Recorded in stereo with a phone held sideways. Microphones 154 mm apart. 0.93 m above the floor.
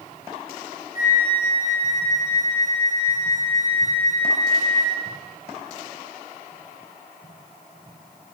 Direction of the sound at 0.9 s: 60° left (ahead or behind).